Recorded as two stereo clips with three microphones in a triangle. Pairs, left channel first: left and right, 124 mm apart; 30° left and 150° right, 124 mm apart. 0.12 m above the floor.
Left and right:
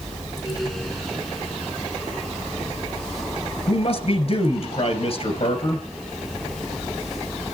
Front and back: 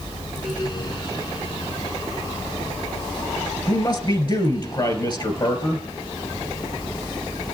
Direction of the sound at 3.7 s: 75° left.